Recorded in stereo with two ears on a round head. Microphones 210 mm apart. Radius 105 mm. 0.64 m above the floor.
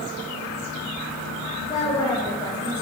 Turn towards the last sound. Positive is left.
turn(degrees=20)  # may be behind; listen again after turning